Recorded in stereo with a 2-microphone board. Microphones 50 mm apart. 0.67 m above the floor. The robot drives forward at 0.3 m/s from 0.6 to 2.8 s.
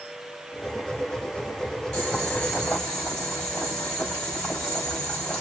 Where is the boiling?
20° left (ahead or behind), 3 m; by 5.4 s 15° left (ahead or behind), 3.5 m.